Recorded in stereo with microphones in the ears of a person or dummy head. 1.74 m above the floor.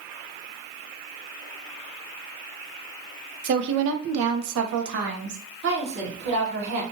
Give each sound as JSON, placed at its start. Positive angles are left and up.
{"t": 3.4, "sound": "a woman speaking", "side_deg": -50, "distance_m": 0.6}
{"t": 5.6, "sound": "a woman speaking", "side_deg": -55, "distance_m": 1.3}